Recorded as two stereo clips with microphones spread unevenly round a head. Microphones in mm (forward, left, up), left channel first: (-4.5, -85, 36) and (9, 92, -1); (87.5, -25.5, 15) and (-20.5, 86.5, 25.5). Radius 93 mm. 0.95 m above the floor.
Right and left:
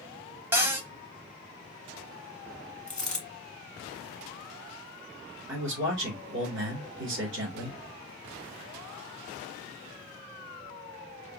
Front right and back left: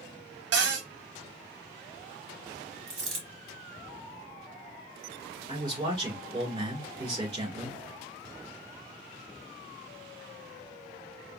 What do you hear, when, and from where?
0.5 s a cupboard door: 165° left, 0.8 m
2.9 s a dropped coin: 175° right, 1.1 m
5.5 s a man speaking: 70° left, 3 m